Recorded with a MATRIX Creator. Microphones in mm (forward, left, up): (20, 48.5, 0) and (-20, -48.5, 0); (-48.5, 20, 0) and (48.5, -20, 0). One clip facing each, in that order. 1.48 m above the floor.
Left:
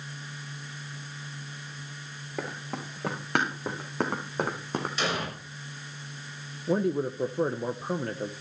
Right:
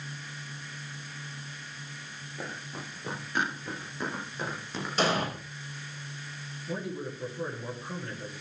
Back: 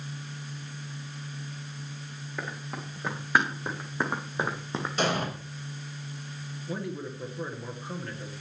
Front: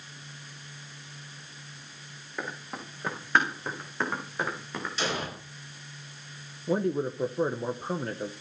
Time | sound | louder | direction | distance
2.4 | running footsteps | left 5 dB, even | 65° left | 6 m
5.0 | an explosion | right 6 dB, back 4 dB | 165° right | 5.5 m
6.7 | a man speaking | left 10 dB, front 8 dB | 30° left | 1.0 m